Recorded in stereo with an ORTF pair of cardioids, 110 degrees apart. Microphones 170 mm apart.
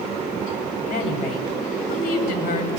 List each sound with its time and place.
0.8 s a woman speaking: 65° left, 7.5 m